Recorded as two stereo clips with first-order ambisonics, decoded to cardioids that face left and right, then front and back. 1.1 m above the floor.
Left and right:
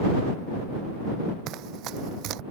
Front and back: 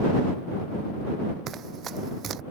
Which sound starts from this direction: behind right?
Running footsteps, at 1.5 s.